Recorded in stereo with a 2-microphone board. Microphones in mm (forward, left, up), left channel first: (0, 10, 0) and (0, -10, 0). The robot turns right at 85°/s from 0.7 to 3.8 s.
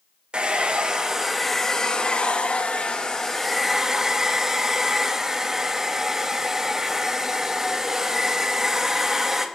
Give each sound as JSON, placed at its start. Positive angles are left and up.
{"t": 0.3, "sound": "a hair dryer", "azimuth_deg": -60, "distance_m": 0.6}